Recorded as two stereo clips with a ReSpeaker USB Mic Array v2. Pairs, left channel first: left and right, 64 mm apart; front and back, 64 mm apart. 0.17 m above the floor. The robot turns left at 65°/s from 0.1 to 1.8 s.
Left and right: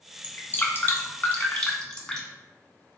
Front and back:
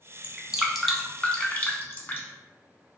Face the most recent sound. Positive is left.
turn(degrees=25)